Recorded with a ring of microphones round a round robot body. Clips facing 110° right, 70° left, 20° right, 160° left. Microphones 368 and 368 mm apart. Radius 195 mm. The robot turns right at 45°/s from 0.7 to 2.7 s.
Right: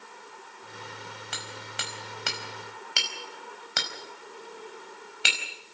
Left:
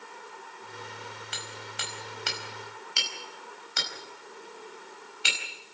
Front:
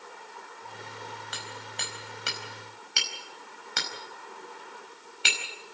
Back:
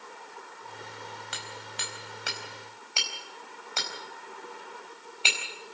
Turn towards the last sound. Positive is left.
turn(degrees=-90)